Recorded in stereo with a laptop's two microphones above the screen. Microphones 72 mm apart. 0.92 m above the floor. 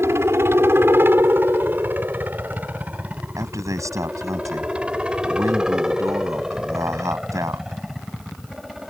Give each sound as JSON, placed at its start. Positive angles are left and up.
{"t": 0.0, "sound": "a helicopter", "side_deg": -35}
{"t": 3.4, "sound": "a man speaking", "side_deg": -45}